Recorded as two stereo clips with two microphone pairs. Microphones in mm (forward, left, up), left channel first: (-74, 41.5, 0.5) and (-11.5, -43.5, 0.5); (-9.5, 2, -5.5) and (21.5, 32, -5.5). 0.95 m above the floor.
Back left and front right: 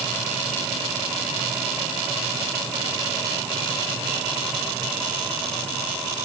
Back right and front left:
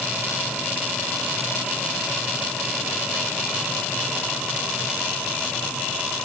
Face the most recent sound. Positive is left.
No sound to turn to.